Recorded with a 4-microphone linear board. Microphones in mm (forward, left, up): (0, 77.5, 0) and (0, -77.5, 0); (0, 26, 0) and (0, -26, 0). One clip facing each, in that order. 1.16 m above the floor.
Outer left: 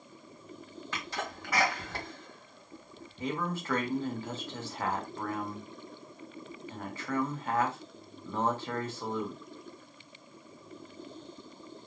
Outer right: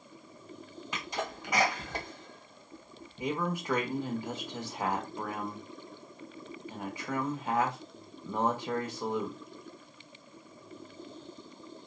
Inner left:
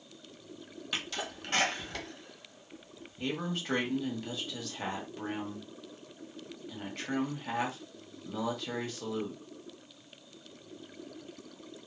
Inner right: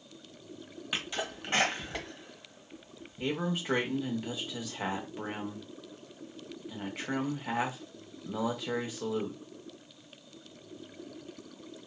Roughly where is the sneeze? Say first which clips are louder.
Outer right 2 dB, inner right 2 dB; centre.